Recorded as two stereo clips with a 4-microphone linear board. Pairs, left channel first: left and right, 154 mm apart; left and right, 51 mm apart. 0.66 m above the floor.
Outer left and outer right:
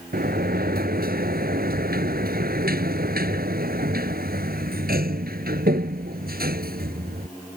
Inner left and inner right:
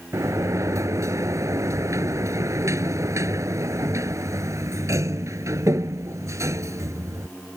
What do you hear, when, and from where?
0.1 s a sliding door: 80° right